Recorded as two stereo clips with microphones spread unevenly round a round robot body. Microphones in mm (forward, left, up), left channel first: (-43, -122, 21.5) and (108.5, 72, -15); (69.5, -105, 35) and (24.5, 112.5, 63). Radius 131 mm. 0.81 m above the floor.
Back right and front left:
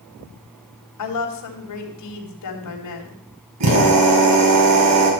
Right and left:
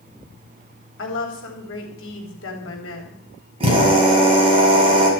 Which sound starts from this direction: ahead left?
A drill, at 3.6 s.